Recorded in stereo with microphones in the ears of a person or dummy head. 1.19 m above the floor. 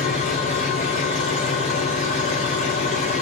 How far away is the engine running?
About 1.9 m.